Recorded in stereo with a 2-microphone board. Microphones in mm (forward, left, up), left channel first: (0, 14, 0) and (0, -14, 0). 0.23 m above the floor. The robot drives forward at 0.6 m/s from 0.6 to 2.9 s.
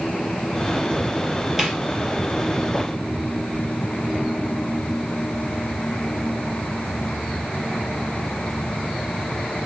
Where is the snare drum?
15° right (ahead or behind), 4 m.